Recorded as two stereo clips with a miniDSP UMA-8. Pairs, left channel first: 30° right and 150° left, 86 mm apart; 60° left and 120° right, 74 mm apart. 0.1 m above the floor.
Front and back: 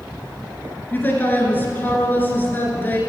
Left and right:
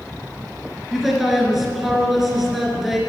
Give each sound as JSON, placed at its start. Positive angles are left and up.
{"t": 0.9, "sound": "a man speaking", "azimuth_deg": -35, "distance_m": 1.6}